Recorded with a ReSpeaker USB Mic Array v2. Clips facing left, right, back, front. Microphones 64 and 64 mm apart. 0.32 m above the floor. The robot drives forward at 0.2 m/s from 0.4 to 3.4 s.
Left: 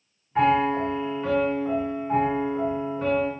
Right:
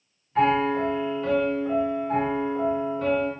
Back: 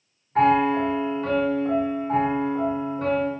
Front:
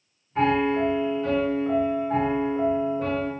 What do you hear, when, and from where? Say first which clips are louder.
0.3 s a piano: left 1 dB, back 3 dB; 160° left, 1.4 m; by 3.3 s 165° left, 1.9 m